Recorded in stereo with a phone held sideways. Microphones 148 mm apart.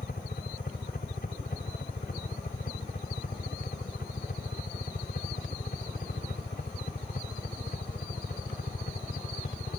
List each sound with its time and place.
0.0 s a helicopter: 75° left (ahead or behind)